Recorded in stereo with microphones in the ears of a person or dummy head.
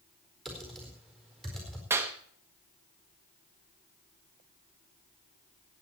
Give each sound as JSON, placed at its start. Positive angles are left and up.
{"t": 0.5, "sound": "typing on a keyboard", "side_deg": 5, "distance_m": 4.5}
{"t": 1.9, "sound": "a clap", "side_deg": -10, "distance_m": 1.3}